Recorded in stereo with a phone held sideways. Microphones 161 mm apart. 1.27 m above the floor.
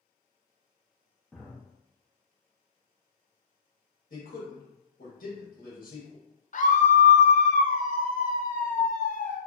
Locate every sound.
1.3 s a drawer: centre (ahead or behind), 0.6 m
4.1 s a man speaking: 60° left (ahead or behind), 1.5 m
6.5 s a scream: 55° left (ahead or behind), 0.5 m